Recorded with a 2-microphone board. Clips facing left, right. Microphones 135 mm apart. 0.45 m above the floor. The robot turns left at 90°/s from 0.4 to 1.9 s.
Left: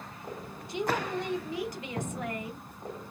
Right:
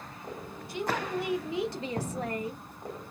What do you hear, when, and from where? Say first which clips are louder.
0.7 s a woman speaking: left 1 dB; 40° left, 0.9 m; by 2.6 s 70° right, 0.9 m